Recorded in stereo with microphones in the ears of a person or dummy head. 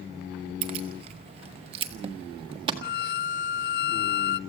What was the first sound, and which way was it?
Keys jangling, 25° right (ahead or behind).